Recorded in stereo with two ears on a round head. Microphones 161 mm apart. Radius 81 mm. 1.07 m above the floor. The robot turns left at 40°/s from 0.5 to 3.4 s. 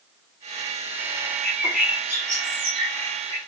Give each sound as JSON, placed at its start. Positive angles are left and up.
{"t": 1.4, "sound": "a bird", "azimuth_deg": 10, "distance_m": 0.7}